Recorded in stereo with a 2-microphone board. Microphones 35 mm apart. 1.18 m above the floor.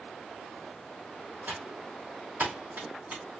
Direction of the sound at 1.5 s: 65° right (ahead or behind).